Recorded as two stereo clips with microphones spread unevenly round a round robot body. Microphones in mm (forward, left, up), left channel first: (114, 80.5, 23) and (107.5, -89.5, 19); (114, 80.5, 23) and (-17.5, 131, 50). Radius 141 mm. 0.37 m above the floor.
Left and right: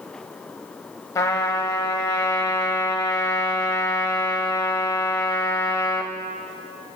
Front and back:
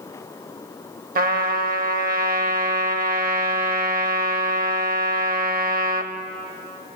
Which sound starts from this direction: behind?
A trumpet, at 1.1 s.